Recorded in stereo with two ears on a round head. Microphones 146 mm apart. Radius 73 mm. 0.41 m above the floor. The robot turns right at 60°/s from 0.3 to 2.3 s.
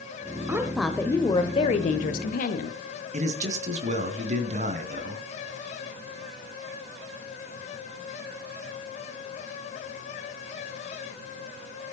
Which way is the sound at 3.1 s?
45° right (ahead or behind).